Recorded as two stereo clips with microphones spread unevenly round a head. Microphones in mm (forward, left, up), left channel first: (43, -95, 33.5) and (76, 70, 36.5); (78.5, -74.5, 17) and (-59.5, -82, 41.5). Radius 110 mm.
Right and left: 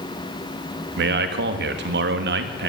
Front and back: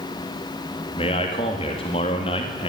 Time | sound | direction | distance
1.0 | a man speaking | 65° left | 1.6 m